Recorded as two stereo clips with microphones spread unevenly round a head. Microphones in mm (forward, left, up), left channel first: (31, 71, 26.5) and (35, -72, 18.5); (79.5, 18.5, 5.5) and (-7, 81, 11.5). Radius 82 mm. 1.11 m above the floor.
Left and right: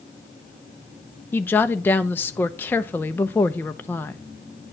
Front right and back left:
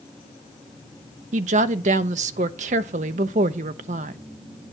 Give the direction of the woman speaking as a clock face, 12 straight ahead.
6 o'clock.